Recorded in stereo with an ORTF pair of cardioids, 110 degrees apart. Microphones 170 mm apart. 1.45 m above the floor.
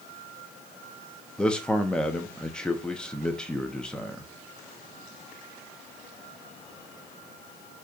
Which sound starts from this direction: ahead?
A man speaking, at 1.4 s.